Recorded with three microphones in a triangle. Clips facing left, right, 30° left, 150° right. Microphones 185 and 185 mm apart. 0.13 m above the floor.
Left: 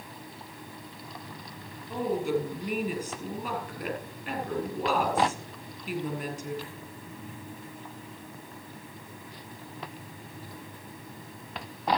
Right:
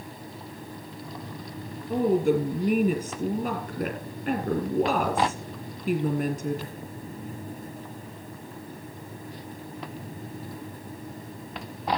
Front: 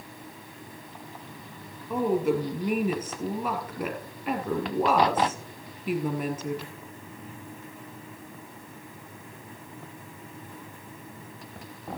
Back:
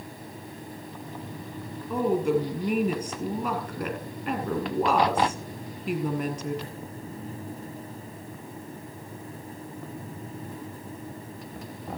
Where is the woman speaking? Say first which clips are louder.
Right 6 dB, back 1 dB; 55° right, 2.5 m.